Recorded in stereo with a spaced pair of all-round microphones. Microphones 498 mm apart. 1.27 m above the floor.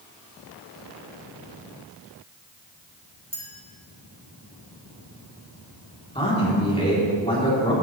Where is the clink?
10° right (ahead or behind), 2.5 m.